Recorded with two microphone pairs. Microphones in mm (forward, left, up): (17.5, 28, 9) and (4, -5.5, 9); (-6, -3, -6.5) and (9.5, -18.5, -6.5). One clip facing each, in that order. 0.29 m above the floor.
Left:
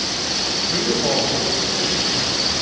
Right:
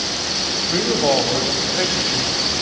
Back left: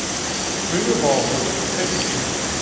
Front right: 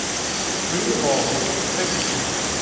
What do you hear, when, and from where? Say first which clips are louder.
0.7 s a man speaking: right 3 dB, back left 3 dB; straight behind, 1.6 m; by 2.3 s 115° right, 2 m